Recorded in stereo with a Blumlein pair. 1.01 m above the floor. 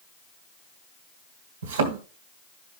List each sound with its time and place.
1.6 s a thud: 65° right, 2.5 m